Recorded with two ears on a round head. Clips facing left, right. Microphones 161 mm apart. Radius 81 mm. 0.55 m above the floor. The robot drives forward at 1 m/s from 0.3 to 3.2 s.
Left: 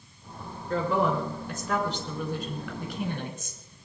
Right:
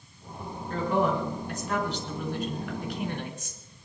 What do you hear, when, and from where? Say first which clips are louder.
0.7 s a woman speaking: even; 65° left (ahead or behind), 7.5 m; by 3.7 s 80° left, 7 m